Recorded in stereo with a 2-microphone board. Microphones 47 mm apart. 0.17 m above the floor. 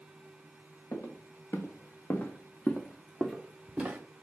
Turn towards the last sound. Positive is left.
turn(degrees=-25)  # may be behind; listen again after turning